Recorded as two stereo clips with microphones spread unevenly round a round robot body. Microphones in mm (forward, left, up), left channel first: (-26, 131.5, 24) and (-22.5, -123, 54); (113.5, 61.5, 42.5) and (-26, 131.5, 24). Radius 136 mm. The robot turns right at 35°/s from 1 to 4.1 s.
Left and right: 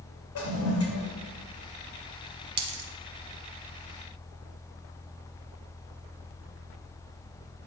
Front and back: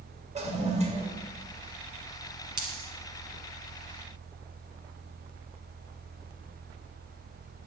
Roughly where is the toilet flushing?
Behind left.